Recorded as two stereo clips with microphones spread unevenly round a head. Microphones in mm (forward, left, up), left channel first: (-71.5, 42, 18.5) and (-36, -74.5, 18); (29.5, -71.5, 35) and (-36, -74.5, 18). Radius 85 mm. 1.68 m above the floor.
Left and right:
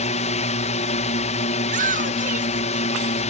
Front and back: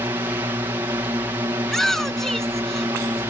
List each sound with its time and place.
0.0 s a drone: 120° left
1.6 s a shout: 80° right